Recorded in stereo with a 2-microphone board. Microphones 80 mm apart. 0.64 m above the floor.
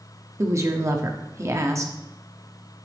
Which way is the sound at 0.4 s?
40° right (ahead or behind).